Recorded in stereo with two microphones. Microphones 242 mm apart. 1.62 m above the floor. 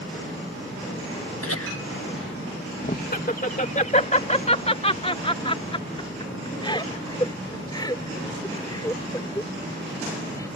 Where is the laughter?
70° left (ahead or behind); by 10.5 s 15° left (ahead or behind).